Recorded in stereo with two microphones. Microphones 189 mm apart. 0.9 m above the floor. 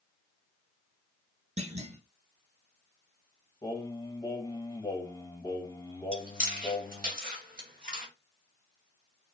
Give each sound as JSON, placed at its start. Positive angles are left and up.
{"t": 1.6, "sound": "a clunk", "side_deg": -35, "distance_m": 0.7}
{"t": 3.6, "sound": "singing", "side_deg": 20, "distance_m": 1.2}
{"t": 6.1, "sound": "chewing", "side_deg": -50, "distance_m": 1.9}